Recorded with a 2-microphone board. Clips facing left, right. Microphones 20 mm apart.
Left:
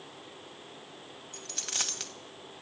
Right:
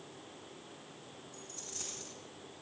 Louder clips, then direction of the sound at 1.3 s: Left 13 dB; 85° left.